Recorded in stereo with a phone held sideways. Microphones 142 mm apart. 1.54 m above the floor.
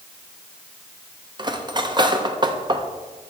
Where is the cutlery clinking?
30° right (ahead or behind), 0.7 m.